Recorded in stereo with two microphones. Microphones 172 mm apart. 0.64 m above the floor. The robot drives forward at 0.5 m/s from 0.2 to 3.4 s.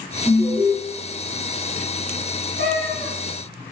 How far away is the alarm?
About 4.5 m.